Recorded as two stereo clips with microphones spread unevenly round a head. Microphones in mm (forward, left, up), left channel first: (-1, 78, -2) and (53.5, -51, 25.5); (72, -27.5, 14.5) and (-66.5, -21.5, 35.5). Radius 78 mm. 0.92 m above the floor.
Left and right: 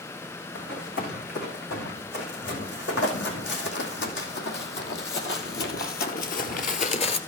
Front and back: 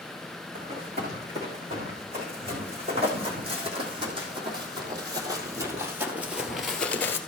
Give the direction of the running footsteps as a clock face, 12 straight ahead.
8 o'clock.